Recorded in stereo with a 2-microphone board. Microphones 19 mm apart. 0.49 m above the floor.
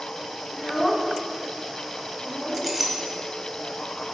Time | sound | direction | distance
0.5 | a child speaking | 35° left (ahead or behind) | 1.1 m
2.5 | a clink | 15° right (ahead or behind) | 1.7 m